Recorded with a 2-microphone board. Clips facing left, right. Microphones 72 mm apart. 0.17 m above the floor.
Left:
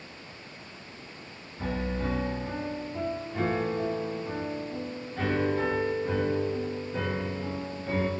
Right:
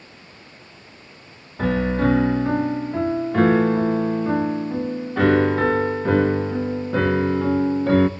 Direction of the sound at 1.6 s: 70° right (ahead or behind).